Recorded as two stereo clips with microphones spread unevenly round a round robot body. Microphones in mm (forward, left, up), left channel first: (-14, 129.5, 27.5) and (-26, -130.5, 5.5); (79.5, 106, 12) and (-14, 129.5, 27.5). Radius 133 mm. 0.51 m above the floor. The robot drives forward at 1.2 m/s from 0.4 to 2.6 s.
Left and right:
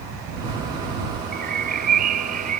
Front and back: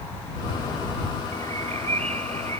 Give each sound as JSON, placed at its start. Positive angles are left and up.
{"t": 1.3, "sound": "a bird", "azimuth_deg": -150}